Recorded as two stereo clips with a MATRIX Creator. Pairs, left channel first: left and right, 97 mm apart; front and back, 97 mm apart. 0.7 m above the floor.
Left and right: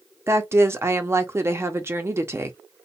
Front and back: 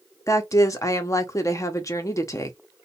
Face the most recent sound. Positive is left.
turn(degrees=-40)